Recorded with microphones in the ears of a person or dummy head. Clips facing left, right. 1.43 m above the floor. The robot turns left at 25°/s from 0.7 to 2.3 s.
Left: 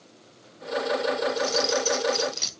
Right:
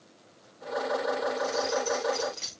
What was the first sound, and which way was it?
Keys jangling, 70° left (ahead or behind).